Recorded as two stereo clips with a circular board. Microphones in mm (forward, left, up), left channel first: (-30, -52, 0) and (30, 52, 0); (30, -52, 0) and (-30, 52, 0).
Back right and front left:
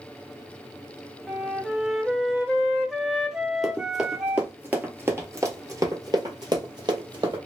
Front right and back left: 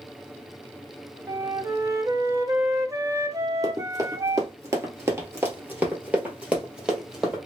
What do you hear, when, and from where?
1.3 s a flute: 135° left, 0.8 m
3.6 s running footsteps: 150° left, 1.6 m; by 7.4 s 35° left, 2.0 m